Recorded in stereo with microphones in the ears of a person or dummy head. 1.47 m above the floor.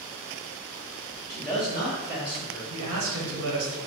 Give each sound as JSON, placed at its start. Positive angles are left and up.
{"t": 1.3, "sound": "a man speaking", "side_deg": 5, "distance_m": 1.8}
{"t": 2.7, "sound": "a man speaking", "side_deg": -75, "distance_m": 1.2}